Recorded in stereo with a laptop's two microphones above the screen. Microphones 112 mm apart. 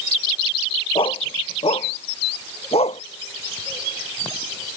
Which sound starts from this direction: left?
A dog barking, at 0.9 s.